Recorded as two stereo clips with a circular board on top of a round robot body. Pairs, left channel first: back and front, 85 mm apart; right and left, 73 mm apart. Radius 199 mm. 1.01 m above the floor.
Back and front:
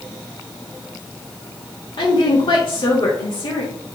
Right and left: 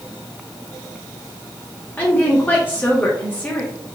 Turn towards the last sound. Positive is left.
turn(degrees=-155)